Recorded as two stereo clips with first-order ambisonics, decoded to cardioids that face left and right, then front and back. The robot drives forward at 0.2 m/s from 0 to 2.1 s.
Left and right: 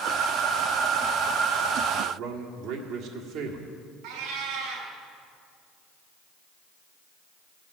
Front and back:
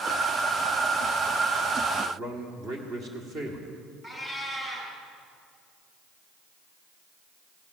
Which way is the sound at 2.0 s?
125° right.